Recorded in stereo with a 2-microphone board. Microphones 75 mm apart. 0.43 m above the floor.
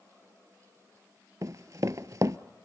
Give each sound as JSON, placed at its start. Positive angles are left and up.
{"t": 1.4, "sound": "running footsteps", "side_deg": -50, "distance_m": 0.5}